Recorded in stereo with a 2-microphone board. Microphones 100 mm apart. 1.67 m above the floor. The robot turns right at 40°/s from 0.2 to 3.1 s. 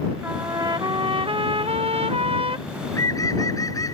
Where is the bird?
20° left (ahead or behind); by 4.0 s 35° left (ahead or behind).